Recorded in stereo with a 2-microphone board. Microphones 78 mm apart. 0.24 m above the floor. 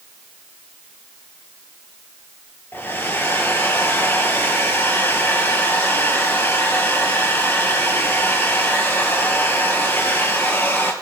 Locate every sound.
2.7 s a hair dryer: 30° left (ahead or behind), 2.5 m